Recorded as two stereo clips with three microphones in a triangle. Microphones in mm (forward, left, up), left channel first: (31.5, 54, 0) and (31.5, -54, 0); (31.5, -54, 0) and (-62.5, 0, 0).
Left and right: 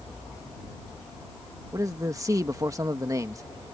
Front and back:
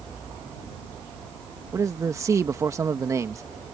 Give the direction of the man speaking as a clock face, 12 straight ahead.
5 o'clock.